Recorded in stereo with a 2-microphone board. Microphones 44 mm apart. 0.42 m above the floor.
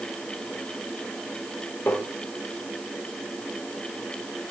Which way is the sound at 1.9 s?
60° left (ahead or behind).